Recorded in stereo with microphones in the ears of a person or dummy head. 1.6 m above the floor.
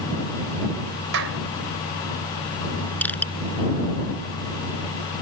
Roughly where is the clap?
Right.